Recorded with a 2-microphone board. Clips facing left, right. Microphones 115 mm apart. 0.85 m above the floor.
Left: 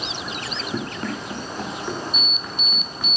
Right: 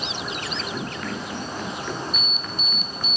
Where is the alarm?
35° right (ahead or behind), 1.3 m.